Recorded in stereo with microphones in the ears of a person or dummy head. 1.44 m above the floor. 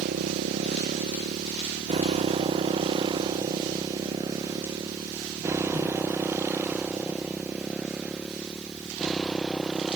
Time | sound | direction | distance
0.0 | a motorcycle | 40° right (ahead or behind) | ?